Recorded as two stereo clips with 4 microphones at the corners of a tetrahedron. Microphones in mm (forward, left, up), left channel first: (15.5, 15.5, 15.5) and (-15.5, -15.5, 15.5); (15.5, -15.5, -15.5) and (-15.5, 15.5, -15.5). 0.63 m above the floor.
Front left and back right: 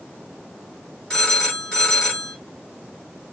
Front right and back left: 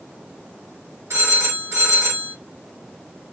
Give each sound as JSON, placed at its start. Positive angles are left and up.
{"t": 1.1, "sound": "a phone ringing", "azimuth_deg": 115, "distance_m": 1.9}